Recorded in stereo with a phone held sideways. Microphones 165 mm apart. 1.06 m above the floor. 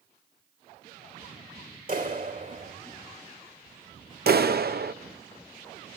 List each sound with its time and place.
1.9 s a clap: 55° right (ahead or behind), 3 m
4.3 s a clap: 70° right (ahead or behind), 0.7 m